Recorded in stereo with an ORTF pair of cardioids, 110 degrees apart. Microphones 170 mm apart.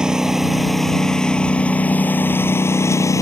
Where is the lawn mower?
5° right; by 3.2 s 20° left.